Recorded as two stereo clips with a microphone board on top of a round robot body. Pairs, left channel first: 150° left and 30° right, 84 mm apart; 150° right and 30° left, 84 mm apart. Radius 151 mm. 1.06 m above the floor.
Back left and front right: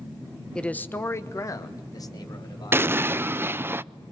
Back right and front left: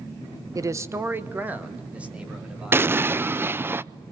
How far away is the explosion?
About 0.6 m.